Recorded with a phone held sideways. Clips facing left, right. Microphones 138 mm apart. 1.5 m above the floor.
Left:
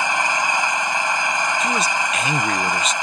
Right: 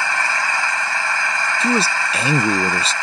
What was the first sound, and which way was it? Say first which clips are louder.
An engine running: left 1 dB; 20° left (ahead or behind).